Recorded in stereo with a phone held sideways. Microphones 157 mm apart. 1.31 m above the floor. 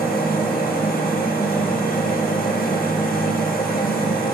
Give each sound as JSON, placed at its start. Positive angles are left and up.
{"t": 0.0, "sound": "a machine running", "side_deg": 65, "distance_m": 0.9}